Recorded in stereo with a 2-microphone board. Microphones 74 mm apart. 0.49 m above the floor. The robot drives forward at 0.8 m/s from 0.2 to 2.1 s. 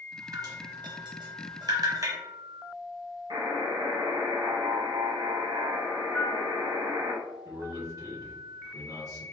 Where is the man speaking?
50° right (ahead or behind), 1.6 m.